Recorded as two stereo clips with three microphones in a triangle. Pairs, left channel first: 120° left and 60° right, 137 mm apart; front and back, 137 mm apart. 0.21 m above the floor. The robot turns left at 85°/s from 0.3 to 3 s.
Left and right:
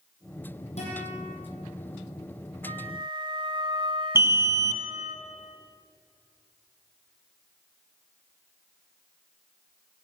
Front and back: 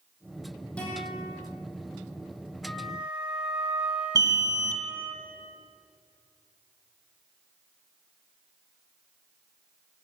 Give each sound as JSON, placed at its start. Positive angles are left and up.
{"t": 0.8, "sound": "a guitar", "azimuth_deg": 85, "distance_m": 7.5}
{"t": 2.6, "sound": "a flute", "azimuth_deg": -70, "distance_m": 1.7}
{"t": 4.2, "sound": "an alarm", "azimuth_deg": -125, "distance_m": 1.5}